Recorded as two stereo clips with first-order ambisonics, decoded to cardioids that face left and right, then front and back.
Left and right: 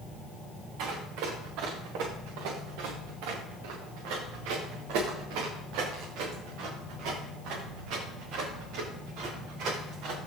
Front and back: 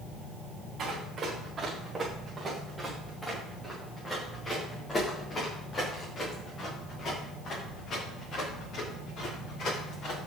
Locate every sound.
0.8 s running footsteps: 115° right, 5.5 m; by 10.2 s 55° right, 11 m